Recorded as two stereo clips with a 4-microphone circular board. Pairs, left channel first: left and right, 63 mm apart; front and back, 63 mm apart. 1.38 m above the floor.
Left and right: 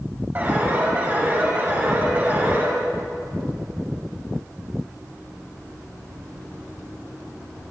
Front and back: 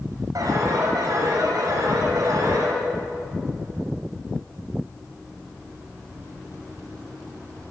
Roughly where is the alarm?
Behind right.